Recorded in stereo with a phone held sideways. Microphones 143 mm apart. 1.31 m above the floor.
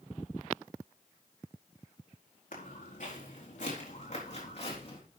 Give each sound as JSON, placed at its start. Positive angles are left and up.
{"t": 2.5, "sound": "footsteps", "side_deg": 65, "distance_m": 4.5}